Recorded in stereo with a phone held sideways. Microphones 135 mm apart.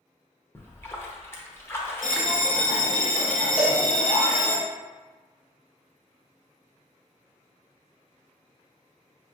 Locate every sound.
0.6 s a splash: 15° left (ahead or behind), 0.7 m
2.0 s a bell: 75° left (ahead or behind), 0.8 m
3.6 s a cowbell: 10° right (ahead or behind), 0.8 m